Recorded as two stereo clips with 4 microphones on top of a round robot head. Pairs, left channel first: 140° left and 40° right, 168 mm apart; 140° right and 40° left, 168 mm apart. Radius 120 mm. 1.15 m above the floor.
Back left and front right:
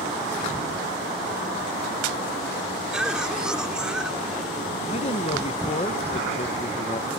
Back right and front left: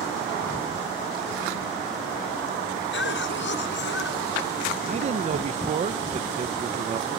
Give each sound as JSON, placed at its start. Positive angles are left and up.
{"t": 2.9, "sound": "a cough", "azimuth_deg": -125}
{"t": 4.9, "sound": "a man speaking", "azimuth_deg": 90}